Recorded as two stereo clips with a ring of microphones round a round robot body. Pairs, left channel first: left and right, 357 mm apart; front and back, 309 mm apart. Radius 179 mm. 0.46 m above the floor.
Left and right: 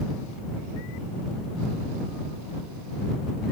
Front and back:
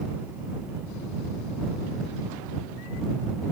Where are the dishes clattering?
I don't hear dishes clattering.